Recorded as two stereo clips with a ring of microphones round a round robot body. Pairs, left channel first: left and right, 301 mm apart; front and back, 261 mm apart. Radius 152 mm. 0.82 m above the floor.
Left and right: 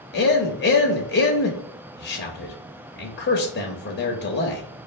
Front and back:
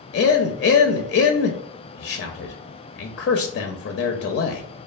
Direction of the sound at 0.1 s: 40° left.